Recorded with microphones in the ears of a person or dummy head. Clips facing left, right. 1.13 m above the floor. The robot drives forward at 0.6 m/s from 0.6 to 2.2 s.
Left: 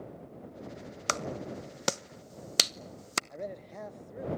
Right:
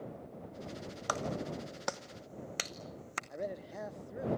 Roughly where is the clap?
Left.